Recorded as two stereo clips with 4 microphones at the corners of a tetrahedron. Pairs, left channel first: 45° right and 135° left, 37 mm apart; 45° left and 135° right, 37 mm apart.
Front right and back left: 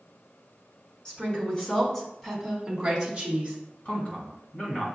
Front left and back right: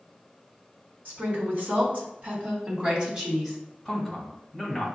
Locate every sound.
1.1 s a woman speaking: 100° right, 1.8 m; by 3.6 s 165° left, 1.3 m
3.9 s a man speaking: 40° right, 1.3 m